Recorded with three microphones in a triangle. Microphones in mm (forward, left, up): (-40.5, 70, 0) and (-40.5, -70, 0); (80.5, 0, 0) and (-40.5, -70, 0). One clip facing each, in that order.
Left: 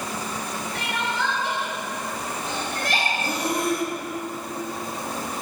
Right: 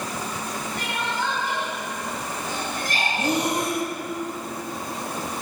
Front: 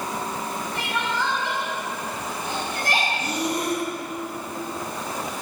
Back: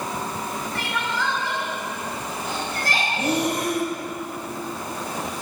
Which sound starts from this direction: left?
Crying, at 0.8 s.